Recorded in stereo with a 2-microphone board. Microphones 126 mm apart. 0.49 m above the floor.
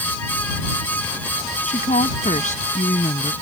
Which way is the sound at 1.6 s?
75° left (ahead or behind).